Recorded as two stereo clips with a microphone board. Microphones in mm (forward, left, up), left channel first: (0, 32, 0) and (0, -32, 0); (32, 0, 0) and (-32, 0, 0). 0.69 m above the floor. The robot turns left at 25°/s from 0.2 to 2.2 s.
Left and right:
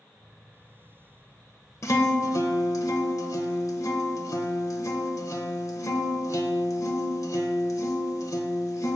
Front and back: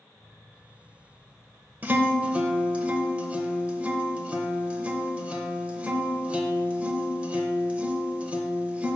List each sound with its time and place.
1.8 s a guitar: 120° left, 0.6 m; by 9.0 s 110° left, 0.6 m